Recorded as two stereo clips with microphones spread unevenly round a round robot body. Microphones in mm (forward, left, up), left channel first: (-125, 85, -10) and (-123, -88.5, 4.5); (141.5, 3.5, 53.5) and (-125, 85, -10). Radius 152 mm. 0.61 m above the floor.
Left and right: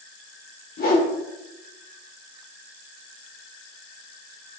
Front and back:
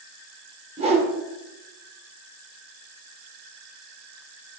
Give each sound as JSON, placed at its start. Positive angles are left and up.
{"t": 0.8, "sound": "a whoosh", "azimuth_deg": 105, "distance_m": 1.8}